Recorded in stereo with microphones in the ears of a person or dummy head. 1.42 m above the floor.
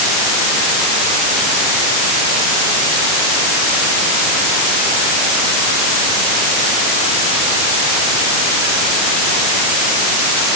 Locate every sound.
Only background noise.